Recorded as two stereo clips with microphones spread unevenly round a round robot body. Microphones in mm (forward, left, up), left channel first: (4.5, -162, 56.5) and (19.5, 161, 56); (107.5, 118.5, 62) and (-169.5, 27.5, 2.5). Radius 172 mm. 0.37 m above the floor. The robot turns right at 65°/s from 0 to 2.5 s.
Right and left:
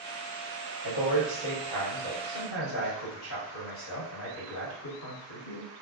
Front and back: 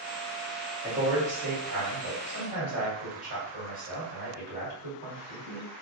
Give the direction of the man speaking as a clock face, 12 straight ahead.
8 o'clock.